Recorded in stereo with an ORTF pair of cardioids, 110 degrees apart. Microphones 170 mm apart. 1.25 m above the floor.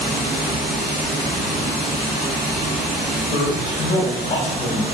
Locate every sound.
0.0 s running water: 60° right, 1.2 m
3.3 s a man speaking: 45° left, 1.0 m